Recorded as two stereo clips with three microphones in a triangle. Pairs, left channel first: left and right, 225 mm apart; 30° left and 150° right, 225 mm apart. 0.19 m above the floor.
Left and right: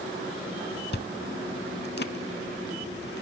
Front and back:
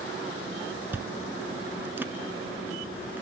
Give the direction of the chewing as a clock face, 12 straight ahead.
8 o'clock.